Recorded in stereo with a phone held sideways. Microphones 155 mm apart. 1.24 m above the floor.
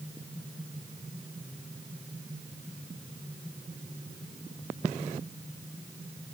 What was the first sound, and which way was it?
Only background noise.